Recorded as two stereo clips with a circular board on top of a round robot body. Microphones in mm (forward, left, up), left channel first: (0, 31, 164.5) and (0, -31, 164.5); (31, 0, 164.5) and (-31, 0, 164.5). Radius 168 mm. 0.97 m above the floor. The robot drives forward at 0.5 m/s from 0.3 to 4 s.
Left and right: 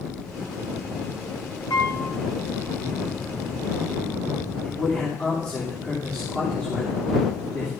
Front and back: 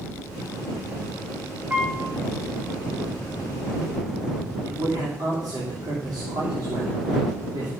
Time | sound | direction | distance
1.7 | a piano | 115° left | 1.8 m
4.6 | a man speaking | 165° left | 3 m